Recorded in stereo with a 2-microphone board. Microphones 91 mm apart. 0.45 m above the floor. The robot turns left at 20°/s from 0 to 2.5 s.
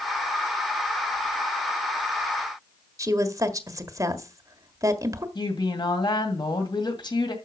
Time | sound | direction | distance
3.0 | a woman speaking | 35° right (ahead or behind) | 1.4 m
5.3 | a woman speaking | 55° left (ahead or behind) | 2 m